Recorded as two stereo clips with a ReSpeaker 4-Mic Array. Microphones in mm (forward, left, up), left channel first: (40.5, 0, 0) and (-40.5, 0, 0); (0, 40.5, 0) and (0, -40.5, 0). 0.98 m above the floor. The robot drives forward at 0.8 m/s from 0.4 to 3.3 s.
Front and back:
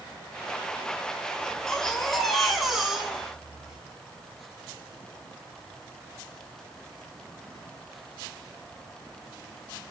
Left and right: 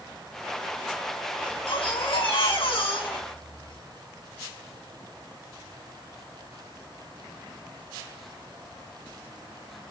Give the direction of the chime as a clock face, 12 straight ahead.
I don't hear a chime.